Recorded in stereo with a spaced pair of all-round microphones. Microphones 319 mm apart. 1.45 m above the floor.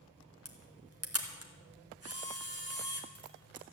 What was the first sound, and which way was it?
A camera shutter, 50° right (ahead or behind).